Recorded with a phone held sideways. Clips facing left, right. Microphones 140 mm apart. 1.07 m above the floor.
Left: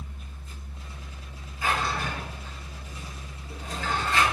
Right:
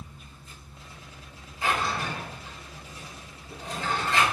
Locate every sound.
0.0 s a fan: 75° left (ahead or behind), 0.9 m
1.6 s a drawer: 25° right (ahead or behind), 3 m